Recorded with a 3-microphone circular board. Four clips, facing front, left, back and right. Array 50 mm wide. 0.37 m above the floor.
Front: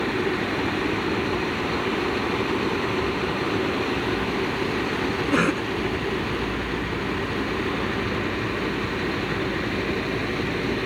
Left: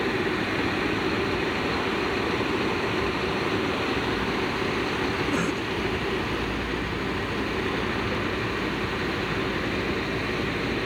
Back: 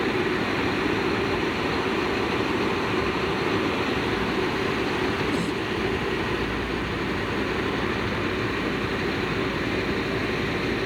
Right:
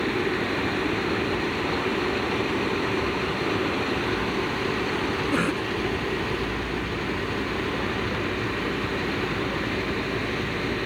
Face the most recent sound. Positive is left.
turn(degrees=-15)